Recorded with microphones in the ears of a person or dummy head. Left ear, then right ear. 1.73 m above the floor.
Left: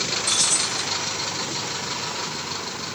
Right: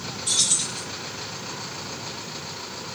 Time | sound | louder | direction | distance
0.3 | keys jangling | right 1 dB | 10° right (ahead or behind) | 2 m